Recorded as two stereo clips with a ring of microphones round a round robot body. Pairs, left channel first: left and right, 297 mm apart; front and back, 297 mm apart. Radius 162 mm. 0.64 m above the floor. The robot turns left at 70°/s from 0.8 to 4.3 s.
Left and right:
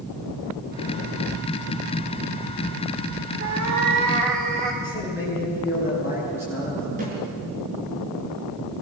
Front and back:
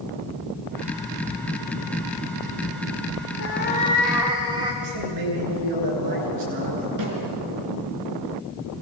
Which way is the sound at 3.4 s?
40° right.